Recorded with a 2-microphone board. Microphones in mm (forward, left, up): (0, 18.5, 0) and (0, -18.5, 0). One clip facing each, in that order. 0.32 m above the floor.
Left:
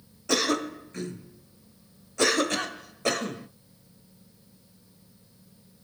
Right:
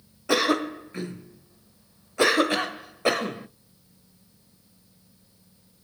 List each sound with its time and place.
0.3 s a cough: 20° right (ahead or behind), 1.0 m